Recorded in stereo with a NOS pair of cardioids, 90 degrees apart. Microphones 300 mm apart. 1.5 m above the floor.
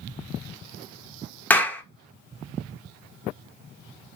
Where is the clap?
5° left, 0.5 m.